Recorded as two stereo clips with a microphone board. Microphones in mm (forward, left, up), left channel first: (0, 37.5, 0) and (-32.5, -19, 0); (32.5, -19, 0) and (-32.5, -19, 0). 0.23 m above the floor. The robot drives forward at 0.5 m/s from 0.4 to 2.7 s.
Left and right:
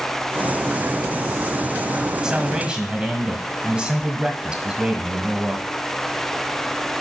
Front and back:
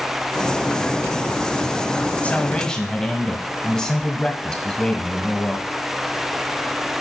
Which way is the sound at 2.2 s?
45° right.